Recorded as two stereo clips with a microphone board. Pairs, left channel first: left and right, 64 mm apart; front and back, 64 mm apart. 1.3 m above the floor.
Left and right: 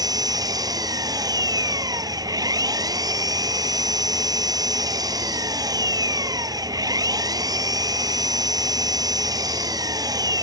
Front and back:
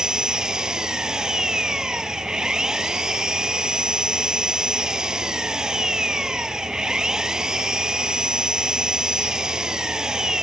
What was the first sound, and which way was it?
An engine running, 100° right.